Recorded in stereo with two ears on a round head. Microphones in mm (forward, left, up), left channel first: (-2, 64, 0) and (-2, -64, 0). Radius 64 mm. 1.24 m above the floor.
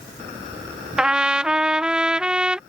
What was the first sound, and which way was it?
A trumpet, 5° right (ahead or behind).